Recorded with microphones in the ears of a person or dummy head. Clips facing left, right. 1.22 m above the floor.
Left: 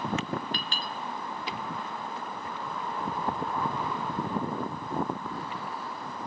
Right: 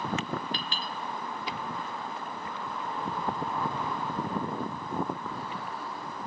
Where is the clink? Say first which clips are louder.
Even; 40° left (ahead or behind), 0.9 m.